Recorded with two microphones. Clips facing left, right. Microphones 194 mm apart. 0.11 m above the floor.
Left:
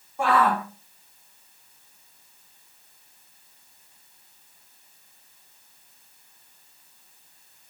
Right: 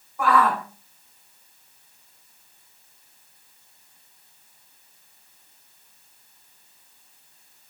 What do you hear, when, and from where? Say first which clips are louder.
0.2 s a shout: right 1 dB; 30° left (ahead or behind), 4 m